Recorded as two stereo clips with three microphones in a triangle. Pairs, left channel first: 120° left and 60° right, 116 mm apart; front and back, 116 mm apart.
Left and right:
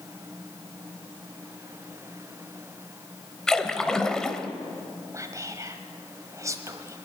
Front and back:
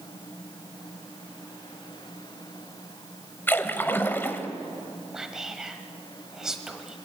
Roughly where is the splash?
Ahead left.